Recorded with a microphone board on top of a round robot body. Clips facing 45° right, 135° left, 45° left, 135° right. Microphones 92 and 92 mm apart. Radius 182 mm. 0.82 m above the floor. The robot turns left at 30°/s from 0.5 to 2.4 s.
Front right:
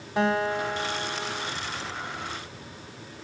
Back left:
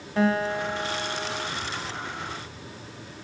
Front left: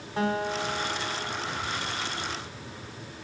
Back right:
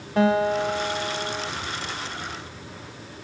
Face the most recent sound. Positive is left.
turn(degrees=-175)